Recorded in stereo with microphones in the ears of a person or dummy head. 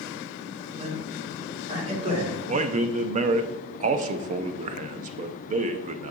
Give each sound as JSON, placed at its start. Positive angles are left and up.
{"t": 0.8, "sound": "a man speaking", "side_deg": -35, "distance_m": 2.0}
{"t": 2.5, "sound": "a man speaking", "side_deg": -40, "distance_m": 0.5}